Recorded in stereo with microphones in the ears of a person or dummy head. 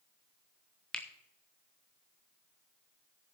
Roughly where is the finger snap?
Centre.